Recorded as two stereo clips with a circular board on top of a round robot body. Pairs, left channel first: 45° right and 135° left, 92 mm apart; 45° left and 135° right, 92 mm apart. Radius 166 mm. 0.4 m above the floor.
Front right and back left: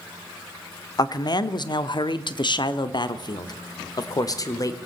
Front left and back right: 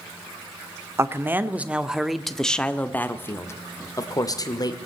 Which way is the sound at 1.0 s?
80° right.